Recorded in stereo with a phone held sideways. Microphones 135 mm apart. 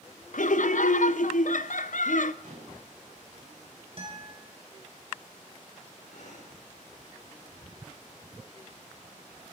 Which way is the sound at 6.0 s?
65° left (ahead or behind).